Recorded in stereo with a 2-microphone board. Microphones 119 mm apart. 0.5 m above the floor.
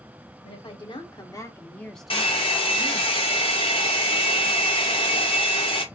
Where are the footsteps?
I don't hear footsteps.